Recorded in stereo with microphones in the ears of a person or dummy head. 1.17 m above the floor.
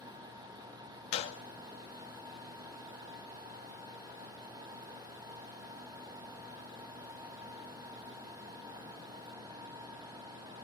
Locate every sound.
1.1 s a gunshot: 35° left (ahead or behind), 1.9 m